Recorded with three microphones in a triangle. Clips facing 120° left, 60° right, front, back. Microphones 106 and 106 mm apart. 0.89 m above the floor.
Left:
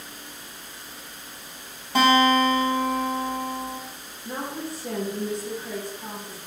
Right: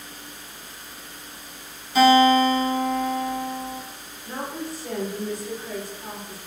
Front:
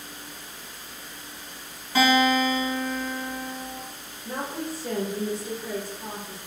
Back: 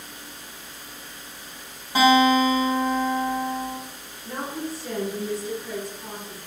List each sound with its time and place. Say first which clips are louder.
1.9 s a guitar: right 3 dB, back 4 dB; 110° left, 1.2 m
4.2 s a woman speaking: even, back 1 dB; 55° left, 1.1 m